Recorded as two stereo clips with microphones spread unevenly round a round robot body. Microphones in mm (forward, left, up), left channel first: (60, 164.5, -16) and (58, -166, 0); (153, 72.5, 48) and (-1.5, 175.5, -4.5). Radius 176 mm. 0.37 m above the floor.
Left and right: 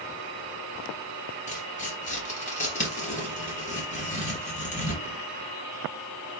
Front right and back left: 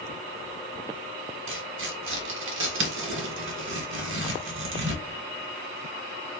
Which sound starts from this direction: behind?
Tearing paper, at 1.5 s.